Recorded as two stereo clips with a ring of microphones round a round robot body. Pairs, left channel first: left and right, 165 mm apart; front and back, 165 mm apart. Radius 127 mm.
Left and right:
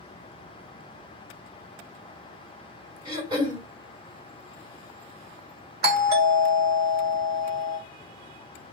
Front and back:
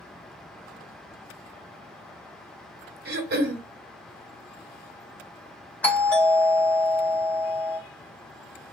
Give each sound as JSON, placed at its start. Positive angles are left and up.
{"t": 3.0, "sound": "throat clearing", "azimuth_deg": -160, "distance_m": 1.7}
{"t": 5.8, "sound": "a doorbell", "azimuth_deg": -80, "distance_m": 3.5}